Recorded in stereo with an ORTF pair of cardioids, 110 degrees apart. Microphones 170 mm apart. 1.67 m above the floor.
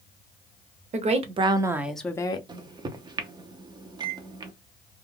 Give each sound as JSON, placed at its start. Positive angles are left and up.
{"t": 0.9, "sound": "a woman speaking", "azimuth_deg": -45, "distance_m": 1.0}
{"t": 2.5, "sound": "a microwave", "azimuth_deg": -25, "distance_m": 0.6}